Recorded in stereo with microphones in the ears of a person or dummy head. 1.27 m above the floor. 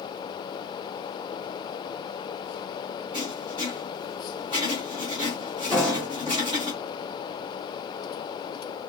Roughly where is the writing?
Centre.